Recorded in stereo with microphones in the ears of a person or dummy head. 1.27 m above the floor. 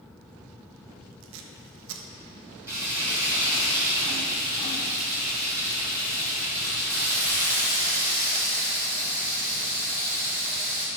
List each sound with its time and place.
1.2 s tape being pulled: 75° right (ahead or behind), 0.9 m
2.7 s frying: 10° right (ahead or behind), 2.5 m